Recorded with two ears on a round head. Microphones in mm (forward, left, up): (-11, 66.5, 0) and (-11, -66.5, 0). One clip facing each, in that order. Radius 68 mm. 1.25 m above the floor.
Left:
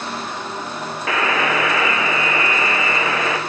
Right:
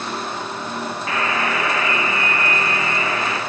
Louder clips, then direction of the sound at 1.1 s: Left 4 dB; 55° left (ahead or behind).